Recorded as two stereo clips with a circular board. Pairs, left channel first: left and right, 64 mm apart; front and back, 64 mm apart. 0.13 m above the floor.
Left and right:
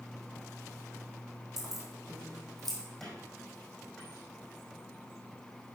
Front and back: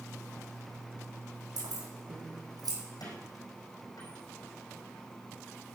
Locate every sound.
1.6 s keys jangling: 175° right, 5 m; by 2.8 s 175° left, 4 m
3.0 s a squeak: 5° left, 4.5 m